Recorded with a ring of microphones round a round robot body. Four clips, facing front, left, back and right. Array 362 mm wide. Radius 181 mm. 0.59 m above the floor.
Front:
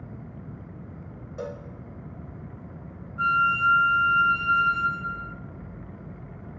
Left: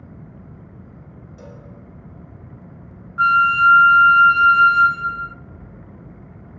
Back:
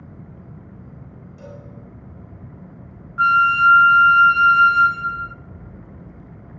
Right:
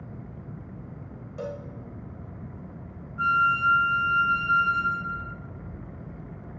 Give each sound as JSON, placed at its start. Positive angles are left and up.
{"t": 1.4, "sound": "a cowbell", "azimuth_deg": -30, "distance_m": 4.0}
{"t": 3.2, "sound": "a flute", "azimuth_deg": 130, "distance_m": 0.5}